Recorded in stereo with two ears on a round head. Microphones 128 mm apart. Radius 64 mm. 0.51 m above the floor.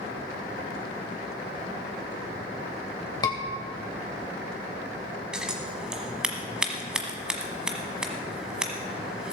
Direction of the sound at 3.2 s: 25° left (ahead or behind).